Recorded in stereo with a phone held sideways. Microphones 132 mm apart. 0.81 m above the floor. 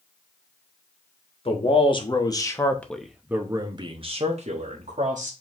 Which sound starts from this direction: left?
A man speaking, at 1.4 s.